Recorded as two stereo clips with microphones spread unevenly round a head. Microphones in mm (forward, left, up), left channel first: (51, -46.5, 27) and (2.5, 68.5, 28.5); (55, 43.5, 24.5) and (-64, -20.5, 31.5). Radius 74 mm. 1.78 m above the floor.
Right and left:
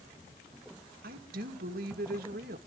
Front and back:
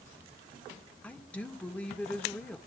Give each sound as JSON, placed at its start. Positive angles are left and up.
{"t": 1.0, "sound": "a woman speaking", "azimuth_deg": 110, "distance_m": 2.5}